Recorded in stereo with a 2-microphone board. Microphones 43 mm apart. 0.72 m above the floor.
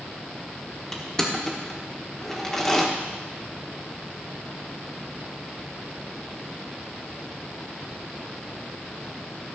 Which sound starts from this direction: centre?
Crushing, at 0.9 s.